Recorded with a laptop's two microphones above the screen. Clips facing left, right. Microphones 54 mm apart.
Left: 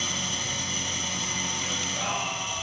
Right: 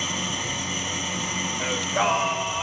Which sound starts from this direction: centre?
An engine running, at 0.0 s.